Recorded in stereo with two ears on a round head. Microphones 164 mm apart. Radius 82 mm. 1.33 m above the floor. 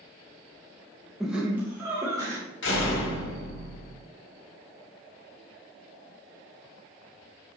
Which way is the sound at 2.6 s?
75° left (ahead or behind).